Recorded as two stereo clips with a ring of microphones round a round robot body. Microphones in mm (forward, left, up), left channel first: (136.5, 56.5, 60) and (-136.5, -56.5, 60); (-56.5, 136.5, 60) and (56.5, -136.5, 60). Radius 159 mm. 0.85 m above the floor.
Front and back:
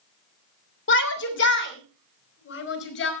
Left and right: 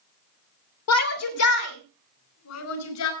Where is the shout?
75° left, 2.5 m.